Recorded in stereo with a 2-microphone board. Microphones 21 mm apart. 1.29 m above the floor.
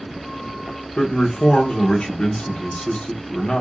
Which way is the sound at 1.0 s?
65° left (ahead or behind).